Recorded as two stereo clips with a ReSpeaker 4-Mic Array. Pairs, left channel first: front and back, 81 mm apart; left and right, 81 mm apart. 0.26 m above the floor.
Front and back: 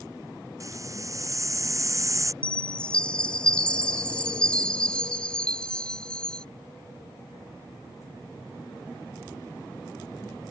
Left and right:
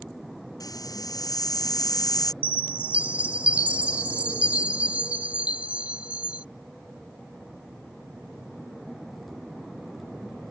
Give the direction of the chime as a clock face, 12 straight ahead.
2 o'clock.